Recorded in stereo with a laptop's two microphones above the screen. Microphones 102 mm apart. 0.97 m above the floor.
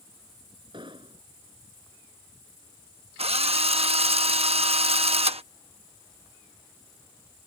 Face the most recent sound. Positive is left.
turn(degrees=-85)